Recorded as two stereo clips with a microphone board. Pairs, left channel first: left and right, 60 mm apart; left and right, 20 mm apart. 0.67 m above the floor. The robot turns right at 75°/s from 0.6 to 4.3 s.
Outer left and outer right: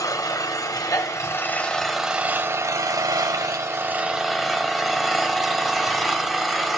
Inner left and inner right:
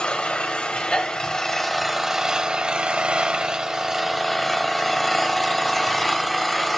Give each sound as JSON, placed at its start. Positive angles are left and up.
{"t": 0.0, "sound": "an engine running", "azimuth_deg": 80, "distance_m": 0.9}